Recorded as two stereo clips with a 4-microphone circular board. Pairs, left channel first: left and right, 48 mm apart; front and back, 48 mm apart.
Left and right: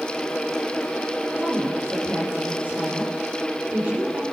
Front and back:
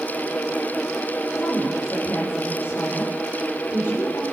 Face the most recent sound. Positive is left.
turn(degrees=-35)